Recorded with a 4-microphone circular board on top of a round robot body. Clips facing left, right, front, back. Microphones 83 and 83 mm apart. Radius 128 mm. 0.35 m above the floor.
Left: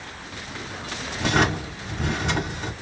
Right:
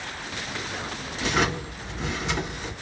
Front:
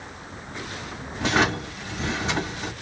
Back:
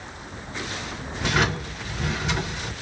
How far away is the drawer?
About 1.5 m.